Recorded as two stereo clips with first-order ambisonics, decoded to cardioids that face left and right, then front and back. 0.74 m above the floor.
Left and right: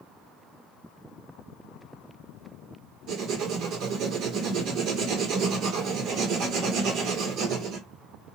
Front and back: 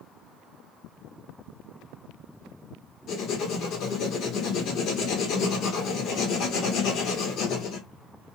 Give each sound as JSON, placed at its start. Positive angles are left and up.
{"t": 3.1, "sound": "writing", "azimuth_deg": -50, "distance_m": 1.2}